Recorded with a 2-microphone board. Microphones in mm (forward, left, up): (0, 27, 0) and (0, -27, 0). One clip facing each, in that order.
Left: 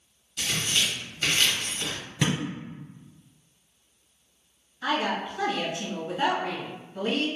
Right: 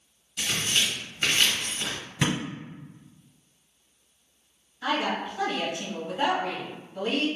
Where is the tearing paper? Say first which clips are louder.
Even; 20° right (ahead or behind), 1.4 m.